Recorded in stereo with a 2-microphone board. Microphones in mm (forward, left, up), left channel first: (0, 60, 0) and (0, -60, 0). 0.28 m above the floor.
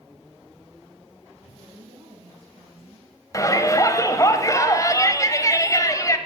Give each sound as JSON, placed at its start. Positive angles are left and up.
{"t": 1.6, "sound": "a woman speaking", "side_deg": -50, "distance_m": 2.5}
{"t": 3.3, "sound": "a shout", "side_deg": 30, "distance_m": 1.4}